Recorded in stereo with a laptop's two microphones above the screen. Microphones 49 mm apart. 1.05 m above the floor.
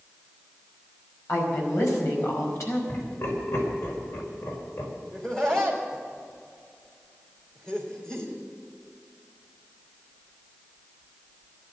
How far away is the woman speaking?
About 5 m.